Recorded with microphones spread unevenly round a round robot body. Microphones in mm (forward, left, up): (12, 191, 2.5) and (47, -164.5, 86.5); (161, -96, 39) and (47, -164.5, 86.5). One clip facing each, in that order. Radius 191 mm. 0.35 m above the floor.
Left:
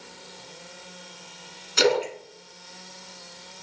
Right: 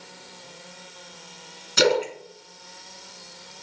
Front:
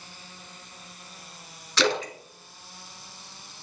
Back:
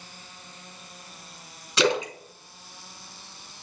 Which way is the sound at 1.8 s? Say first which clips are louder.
Right 1 dB, back 2 dB; 75° right.